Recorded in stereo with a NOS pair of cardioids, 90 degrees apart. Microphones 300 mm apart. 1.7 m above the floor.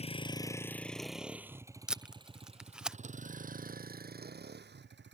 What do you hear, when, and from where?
0.0 s a vehicle: 20° left; by 5.2 s 35° right
1.9 s tape being pulled: 5° right